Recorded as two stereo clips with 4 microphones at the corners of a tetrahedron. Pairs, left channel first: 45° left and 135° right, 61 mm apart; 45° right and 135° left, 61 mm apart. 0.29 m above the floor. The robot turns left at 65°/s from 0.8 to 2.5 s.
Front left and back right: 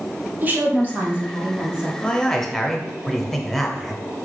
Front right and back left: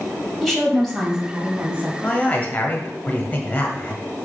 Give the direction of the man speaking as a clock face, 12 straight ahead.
12 o'clock.